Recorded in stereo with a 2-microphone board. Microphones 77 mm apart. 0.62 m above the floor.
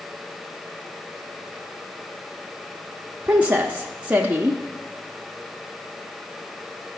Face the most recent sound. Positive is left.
turn(degrees=-20)  # may be behind; listen again after turning